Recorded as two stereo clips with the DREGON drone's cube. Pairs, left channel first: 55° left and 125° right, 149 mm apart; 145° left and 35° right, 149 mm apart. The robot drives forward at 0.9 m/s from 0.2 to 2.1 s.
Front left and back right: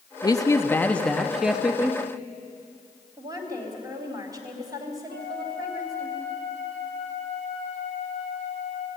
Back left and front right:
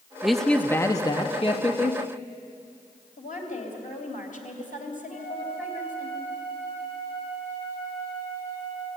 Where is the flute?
110° right, 6 m.